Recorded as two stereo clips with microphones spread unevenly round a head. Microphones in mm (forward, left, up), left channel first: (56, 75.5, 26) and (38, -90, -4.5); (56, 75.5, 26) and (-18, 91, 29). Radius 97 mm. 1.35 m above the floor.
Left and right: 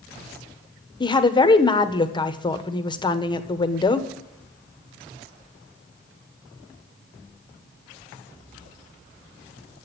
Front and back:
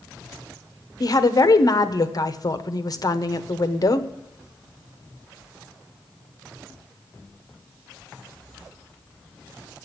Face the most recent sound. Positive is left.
turn(degrees=20)